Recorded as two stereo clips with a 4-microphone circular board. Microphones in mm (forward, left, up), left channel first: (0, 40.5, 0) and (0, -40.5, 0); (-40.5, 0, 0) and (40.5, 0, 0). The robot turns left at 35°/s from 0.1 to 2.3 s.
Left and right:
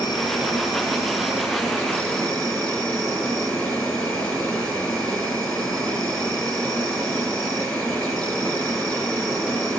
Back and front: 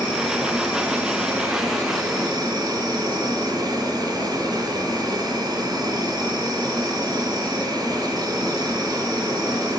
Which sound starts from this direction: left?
An insect, at 0.0 s.